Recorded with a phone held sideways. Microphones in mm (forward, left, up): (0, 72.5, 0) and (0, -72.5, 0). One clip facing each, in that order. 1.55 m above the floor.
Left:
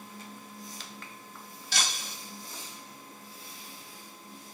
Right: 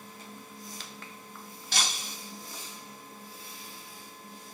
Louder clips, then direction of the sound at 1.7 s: Right 1 dB; 55° right (ahead or behind).